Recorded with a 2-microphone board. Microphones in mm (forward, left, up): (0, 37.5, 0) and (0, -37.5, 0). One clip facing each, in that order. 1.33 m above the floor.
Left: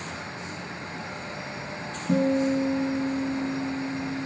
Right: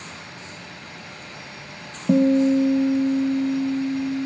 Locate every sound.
2.1 s a guitar: 65° right (ahead or behind), 1.1 m